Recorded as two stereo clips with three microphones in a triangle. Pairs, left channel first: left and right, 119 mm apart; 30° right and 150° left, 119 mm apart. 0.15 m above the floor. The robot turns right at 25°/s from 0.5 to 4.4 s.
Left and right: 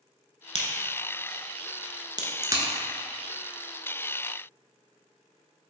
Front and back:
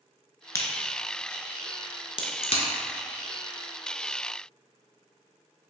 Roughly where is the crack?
Right.